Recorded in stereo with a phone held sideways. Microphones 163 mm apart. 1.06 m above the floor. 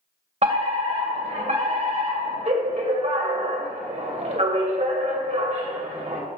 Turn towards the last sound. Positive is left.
turn(degrees=-45)  # may be behind; listen again after turning